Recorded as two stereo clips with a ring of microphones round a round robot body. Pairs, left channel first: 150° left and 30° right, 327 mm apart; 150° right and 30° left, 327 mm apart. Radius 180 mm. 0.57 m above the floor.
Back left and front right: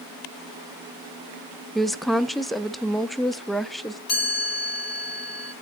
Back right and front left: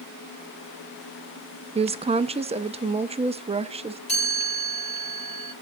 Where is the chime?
140° left, 9.5 m.